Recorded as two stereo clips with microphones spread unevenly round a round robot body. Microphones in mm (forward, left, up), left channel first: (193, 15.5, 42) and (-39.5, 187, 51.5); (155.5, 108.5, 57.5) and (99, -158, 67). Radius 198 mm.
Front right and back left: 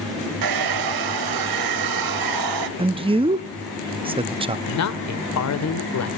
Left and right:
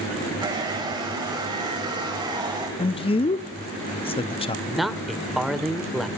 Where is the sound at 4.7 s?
10° right, 2.0 m.